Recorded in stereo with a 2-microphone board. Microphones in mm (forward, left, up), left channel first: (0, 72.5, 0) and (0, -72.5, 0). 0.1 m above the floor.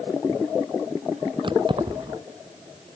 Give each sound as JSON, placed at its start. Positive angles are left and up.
{"t": 1.4, "sound": "keys jangling", "side_deg": -35}